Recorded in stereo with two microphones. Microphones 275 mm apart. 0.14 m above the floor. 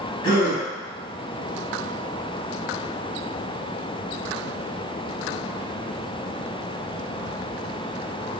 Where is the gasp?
35° right (ahead or behind), 2.0 m.